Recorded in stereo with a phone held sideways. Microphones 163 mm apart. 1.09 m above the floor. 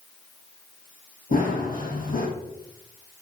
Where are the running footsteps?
55° left (ahead or behind), 2.5 m.